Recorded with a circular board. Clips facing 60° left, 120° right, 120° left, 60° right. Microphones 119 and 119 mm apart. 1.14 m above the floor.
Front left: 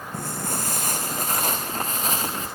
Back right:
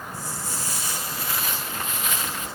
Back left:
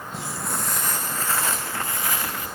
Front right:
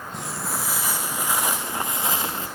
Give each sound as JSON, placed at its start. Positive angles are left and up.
{"t": 0.1, "sound": "footsteps", "azimuth_deg": 35, "distance_m": 3.0}